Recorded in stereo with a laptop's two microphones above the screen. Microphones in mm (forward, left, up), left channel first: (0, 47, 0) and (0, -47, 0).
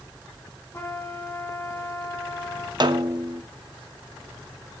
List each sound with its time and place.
0.7 s a trumpet: 25° left (ahead or behind), 2 m
2.8 s a snare drum: 50° right (ahead or behind), 0.6 m